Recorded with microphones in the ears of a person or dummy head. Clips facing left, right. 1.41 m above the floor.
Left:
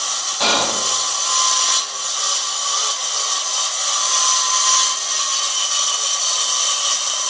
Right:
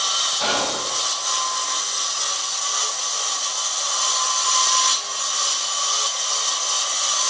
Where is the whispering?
75° left (ahead or behind), 1.2 m.